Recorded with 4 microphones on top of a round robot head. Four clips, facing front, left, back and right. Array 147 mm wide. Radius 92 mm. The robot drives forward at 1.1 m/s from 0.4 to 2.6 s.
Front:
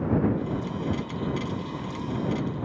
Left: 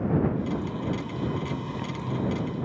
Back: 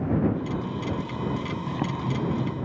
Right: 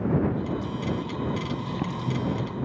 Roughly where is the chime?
I don't hear a chime.